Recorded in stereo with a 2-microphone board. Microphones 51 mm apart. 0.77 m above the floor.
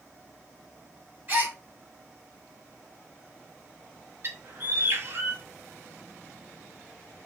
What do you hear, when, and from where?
1.3 s a gasp: 30° right (ahead or behind), 1.9 m
4.2 s a bird: 45° right (ahead or behind), 1.5 m